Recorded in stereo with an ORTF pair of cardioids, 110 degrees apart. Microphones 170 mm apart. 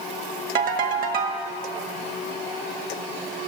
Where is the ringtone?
60° right, 1.7 m.